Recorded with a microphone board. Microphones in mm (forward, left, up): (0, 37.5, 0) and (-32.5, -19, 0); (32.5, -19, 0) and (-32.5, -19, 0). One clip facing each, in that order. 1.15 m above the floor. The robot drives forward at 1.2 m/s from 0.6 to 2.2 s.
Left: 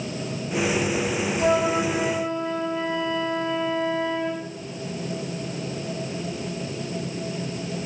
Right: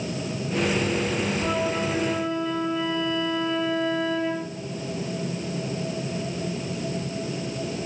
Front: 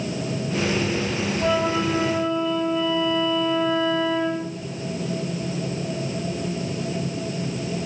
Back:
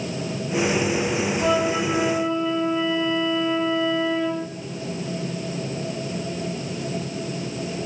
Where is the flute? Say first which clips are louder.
Left 4 dB, front 1 dB; 80° left, 2.0 m; by 4.5 s 110° left, 2 m.